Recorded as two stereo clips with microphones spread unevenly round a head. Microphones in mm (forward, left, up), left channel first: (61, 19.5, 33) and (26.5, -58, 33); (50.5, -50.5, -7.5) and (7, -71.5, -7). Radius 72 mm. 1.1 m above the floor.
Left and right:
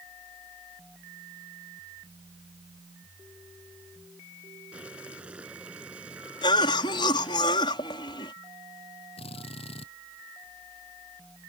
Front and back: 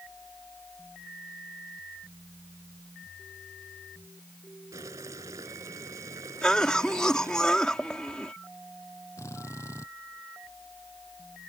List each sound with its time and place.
4.7 s boiling: 165° left
6.4 s a cough: 110° left
9.2 s a drill: 90° left